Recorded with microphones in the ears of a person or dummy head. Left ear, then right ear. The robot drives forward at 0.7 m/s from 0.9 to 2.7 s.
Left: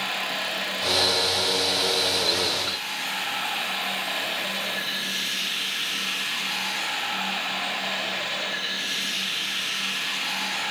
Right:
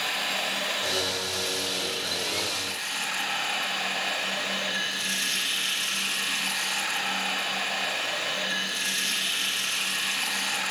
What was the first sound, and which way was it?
Running water, 70° right (ahead or behind).